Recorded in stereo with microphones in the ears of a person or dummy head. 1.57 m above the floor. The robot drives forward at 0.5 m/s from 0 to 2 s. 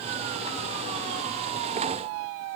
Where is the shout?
I don't hear a shout.